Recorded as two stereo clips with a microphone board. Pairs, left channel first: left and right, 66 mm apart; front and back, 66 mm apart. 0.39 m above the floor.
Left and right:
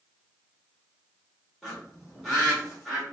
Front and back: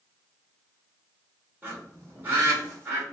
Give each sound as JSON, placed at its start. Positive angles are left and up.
{"t": 1.6, "sound": "a bird", "azimuth_deg": -170, "distance_m": 1.5}